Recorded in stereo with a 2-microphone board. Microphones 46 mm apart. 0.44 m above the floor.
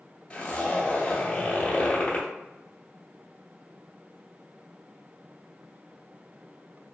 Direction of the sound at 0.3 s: 30° left (ahead or behind).